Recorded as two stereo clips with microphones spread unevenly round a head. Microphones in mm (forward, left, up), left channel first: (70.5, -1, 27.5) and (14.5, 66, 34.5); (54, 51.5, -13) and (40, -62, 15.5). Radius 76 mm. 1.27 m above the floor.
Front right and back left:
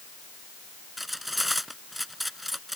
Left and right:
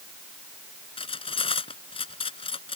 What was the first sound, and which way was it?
Cutlery clinking, 40° left.